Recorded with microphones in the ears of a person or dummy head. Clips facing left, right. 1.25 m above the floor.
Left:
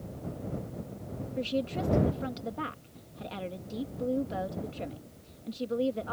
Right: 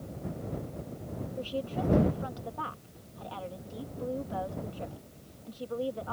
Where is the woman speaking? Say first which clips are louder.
Left 3 dB; 30° left (ahead or behind).